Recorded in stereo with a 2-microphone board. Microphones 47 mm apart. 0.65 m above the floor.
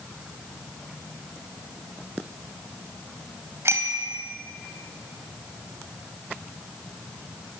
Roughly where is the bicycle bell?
Right.